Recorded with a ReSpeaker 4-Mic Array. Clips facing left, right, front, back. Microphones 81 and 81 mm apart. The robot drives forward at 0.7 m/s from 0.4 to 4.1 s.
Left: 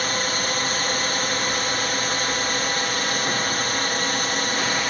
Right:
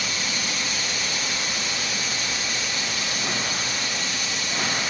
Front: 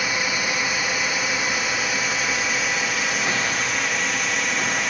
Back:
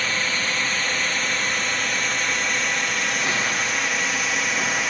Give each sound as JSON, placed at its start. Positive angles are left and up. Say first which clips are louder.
{"t": 0.0, "sound": "a drone", "louder": "left 5 dB, front 1 dB", "azimuth_deg": 75}